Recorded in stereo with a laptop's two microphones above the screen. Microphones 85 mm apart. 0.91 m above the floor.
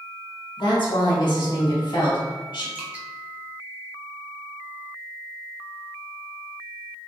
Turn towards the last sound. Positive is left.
turn(degrees=-15)  # may be behind; listen again after turning